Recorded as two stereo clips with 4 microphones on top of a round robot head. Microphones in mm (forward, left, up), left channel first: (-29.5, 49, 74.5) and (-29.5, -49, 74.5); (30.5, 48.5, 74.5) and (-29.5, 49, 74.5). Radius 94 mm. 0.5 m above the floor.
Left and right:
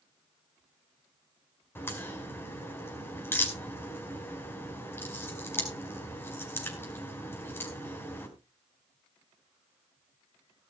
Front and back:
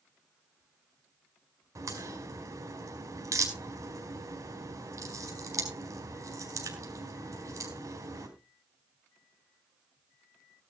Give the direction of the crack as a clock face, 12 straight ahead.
7 o'clock.